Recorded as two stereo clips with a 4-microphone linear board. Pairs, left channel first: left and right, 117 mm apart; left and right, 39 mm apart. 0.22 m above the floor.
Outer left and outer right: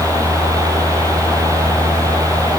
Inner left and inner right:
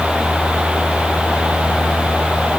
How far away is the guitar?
No guitar in this recording.